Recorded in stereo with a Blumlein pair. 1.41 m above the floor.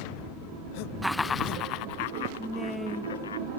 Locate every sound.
1.0 s laughter: 5° right; by 3.4 s 70° left
2.4 s a woman speaking: 5° right